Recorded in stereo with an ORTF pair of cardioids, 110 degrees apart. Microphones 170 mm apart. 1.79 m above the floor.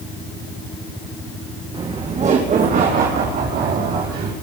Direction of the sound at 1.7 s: 25° right.